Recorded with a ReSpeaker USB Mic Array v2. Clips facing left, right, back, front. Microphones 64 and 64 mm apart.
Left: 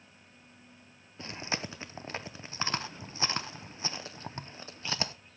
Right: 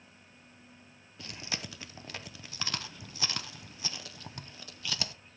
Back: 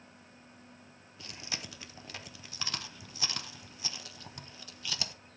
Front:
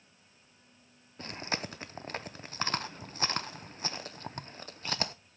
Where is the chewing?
40° left, 0.6 m.